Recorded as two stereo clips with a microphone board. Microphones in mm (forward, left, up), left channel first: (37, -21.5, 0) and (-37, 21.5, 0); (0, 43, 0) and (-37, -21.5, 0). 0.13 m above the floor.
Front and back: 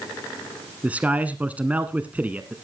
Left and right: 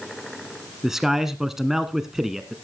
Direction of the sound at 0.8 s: 170° left.